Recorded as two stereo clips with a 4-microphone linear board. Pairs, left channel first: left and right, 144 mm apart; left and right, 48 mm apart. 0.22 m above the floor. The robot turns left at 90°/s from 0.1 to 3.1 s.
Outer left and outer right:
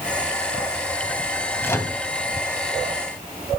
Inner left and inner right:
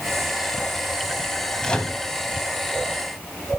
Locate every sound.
1.6 s a microwave: 15° left (ahead or behind), 1.1 m; by 2.0 s 25° left (ahead or behind), 1.1 m